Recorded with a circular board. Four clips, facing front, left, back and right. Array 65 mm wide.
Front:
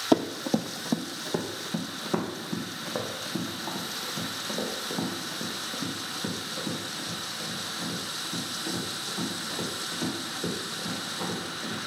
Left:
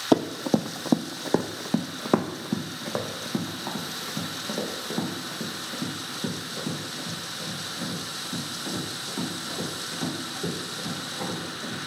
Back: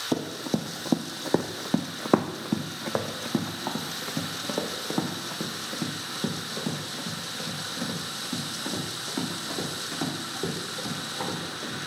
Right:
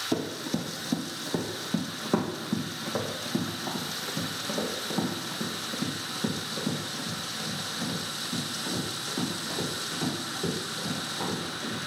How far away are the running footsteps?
About 0.7 m.